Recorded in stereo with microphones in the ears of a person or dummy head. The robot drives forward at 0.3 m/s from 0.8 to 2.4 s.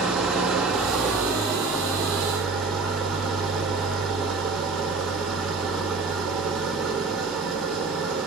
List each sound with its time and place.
0.0 s an engine running: 5° right (ahead or behind), 2.5 m